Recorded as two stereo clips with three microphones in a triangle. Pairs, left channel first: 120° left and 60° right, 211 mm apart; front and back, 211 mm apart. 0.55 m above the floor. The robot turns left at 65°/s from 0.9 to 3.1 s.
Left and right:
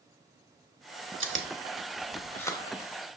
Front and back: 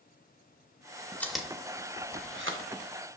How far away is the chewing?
About 0.7 m.